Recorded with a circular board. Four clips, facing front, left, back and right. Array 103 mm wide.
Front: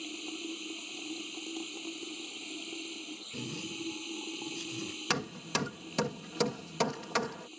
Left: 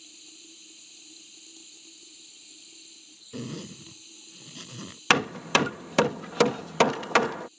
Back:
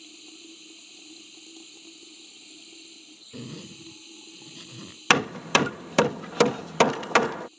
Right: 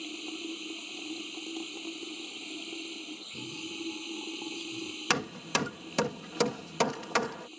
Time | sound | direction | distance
0.0 | running water | 55° right | ?
3.3 | a zipper | 105° left | ?
5.1 | hammering | 150° left | ?